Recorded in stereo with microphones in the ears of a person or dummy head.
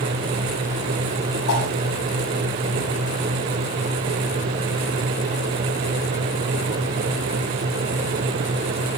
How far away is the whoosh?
About 7 m.